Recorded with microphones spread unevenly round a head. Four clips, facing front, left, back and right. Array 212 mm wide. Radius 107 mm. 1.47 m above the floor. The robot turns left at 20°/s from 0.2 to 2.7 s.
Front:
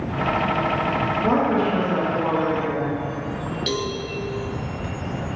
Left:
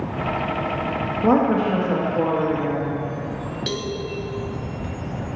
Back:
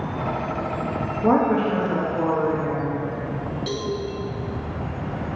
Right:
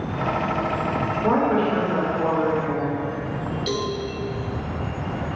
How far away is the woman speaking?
About 1.8 m.